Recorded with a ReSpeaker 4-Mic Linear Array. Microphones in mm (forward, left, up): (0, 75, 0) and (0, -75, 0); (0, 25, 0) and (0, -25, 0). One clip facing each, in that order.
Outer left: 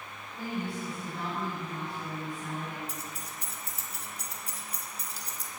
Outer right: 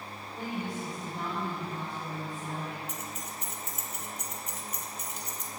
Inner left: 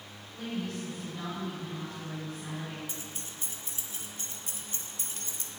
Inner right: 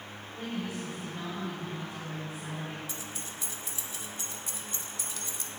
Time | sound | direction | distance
0.3 | a woman speaking | 20° right (ahead or behind) | 4 m
2.9 | keys jangling | 35° left (ahead or behind) | 0.9 m